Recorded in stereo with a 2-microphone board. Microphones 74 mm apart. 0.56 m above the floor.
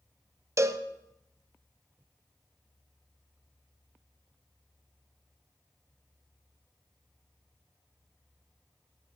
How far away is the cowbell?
About 0.6 m.